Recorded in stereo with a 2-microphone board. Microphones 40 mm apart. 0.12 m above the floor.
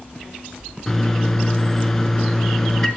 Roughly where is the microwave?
Centre.